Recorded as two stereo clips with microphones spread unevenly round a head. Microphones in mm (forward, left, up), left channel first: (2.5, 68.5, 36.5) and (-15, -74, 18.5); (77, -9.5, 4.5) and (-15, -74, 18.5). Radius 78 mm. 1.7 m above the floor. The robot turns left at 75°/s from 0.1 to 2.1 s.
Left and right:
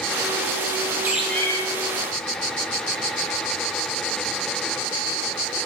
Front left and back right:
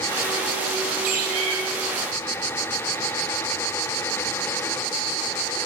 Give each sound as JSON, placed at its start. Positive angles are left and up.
{"t": 1.0, "sound": "a bird", "azimuth_deg": -175, "distance_m": 4.5}